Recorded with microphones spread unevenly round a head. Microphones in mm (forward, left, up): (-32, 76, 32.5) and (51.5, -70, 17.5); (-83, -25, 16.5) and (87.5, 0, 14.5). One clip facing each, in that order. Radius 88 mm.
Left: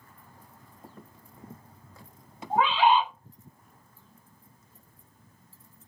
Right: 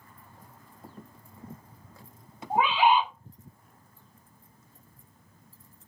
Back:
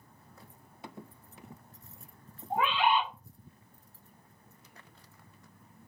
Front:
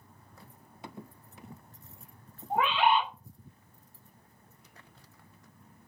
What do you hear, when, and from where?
2.5 s a bird: 10° left, 0.9 m